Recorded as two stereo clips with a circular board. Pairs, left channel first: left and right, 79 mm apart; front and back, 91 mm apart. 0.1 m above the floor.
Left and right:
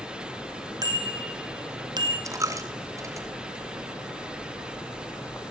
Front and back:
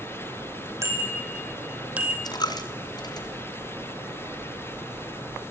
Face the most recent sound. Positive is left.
turn(degrees=-40)